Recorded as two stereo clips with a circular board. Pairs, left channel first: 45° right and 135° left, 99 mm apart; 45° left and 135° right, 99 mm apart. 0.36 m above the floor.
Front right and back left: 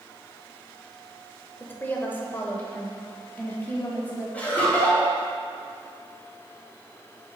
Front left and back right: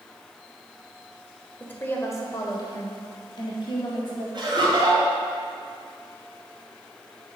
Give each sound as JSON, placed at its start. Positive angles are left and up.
{"t": 1.6, "sound": "a woman speaking", "azimuth_deg": -5, "distance_m": 0.9}
{"t": 4.3, "sound": "laughter", "azimuth_deg": -115, "distance_m": 2.5}